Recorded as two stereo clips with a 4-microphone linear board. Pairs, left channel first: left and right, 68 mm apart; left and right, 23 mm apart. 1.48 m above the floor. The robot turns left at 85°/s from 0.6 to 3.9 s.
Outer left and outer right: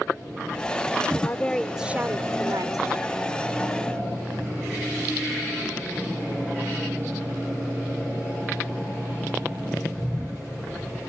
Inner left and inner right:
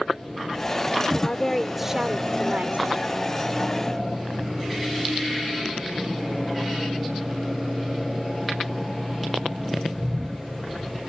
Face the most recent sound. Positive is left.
turn(degrees=170)